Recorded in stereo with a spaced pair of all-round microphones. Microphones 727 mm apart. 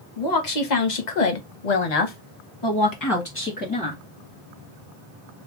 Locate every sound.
0.2 s a woman speaking: 65° left (ahead or behind), 1.3 m; by 4.0 s 5° left (ahead or behind), 1.3 m